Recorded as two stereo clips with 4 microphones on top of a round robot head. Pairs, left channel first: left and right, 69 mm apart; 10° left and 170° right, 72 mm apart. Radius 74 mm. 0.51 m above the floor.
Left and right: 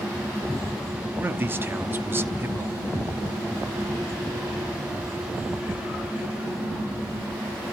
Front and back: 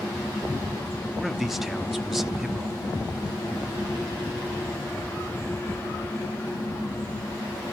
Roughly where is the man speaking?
Right.